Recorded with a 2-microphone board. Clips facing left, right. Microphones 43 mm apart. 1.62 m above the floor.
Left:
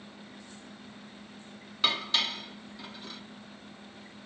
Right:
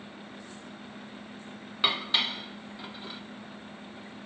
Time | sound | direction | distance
1.8 | dishes clattering | 20° right (ahead or behind) | 0.8 m